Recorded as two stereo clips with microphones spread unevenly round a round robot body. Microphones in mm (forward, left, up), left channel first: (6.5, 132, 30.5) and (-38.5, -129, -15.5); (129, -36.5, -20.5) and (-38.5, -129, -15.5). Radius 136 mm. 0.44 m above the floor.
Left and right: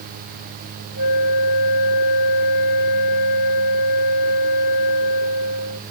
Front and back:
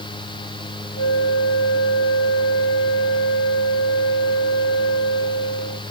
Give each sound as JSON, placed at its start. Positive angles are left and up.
{"t": 1.0, "sound": "a flute", "azimuth_deg": 70}